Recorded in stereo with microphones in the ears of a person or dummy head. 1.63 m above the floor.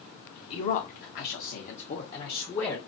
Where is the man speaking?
25° left (ahead or behind), 0.7 m; by 2.8 s 30° left (ahead or behind), 1.1 m.